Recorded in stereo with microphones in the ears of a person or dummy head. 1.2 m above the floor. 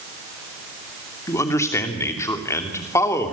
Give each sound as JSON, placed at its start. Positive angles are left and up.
{"t": 1.3, "sound": "a man speaking", "side_deg": 15, "distance_m": 3.0}